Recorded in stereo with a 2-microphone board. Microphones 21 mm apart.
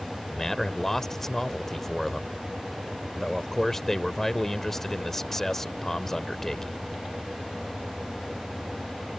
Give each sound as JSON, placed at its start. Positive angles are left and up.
{"t": 0.3, "sound": "a man speaking", "side_deg": 20}